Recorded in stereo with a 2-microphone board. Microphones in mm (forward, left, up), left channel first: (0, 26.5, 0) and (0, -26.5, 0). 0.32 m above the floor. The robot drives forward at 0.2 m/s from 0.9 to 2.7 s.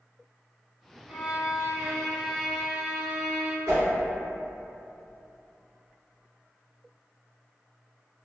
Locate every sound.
1.1 s a violin: 20° right (ahead or behind), 1.1 m; by 3.6 s 25° right (ahead or behind), 0.9 m
3.7 s a whoosh: 50° right (ahead or behind), 1.7 m